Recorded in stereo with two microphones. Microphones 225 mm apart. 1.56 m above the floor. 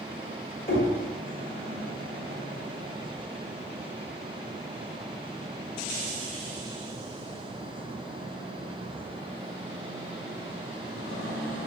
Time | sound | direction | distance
0.7 | knocking | 40° left (ahead or behind) | 1.9 m